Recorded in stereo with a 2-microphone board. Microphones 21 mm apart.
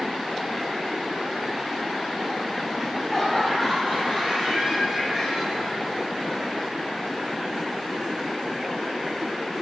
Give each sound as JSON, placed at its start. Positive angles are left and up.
{"t": 2.8, "sound": "laughter", "side_deg": 10, "distance_m": 2.0}